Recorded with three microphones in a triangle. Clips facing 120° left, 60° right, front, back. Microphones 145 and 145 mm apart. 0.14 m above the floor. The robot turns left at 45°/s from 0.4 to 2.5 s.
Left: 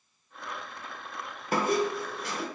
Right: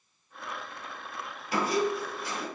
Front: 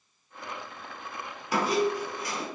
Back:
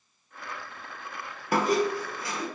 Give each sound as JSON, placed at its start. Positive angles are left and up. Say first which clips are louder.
{"t": 1.5, "sound": "a squeak", "louder": "left 1 dB, back 1 dB", "azimuth_deg": 155, "distance_m": 0.7}